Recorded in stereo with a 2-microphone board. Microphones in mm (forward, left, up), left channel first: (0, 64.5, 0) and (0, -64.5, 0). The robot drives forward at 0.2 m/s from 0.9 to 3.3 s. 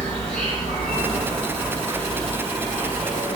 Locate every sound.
0.0 s an insect: 5° left (ahead or behind), 2.0 m